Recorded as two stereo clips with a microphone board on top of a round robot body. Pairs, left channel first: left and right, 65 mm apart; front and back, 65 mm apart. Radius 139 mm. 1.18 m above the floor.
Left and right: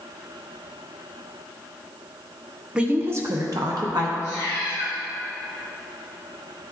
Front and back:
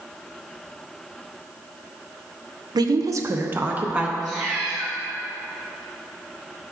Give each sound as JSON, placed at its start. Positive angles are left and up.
{"t": 2.8, "sound": "a woman speaking", "azimuth_deg": -165, "distance_m": 0.7}
{"t": 4.2, "sound": "a cat meowing", "azimuth_deg": -85, "distance_m": 1.3}